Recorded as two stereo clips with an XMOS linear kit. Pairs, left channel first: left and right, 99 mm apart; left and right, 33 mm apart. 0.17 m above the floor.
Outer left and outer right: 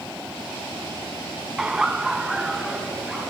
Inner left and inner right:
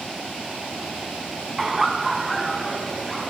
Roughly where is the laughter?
Centre.